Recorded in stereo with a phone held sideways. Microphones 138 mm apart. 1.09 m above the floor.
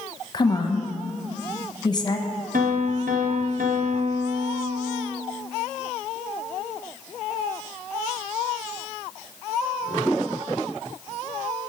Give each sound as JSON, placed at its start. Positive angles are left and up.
{"t": 0.3, "sound": "a woman speaking", "side_deg": 30, "distance_m": 1.1}
{"t": 2.5, "sound": "a piano", "side_deg": -75, "distance_m": 1.0}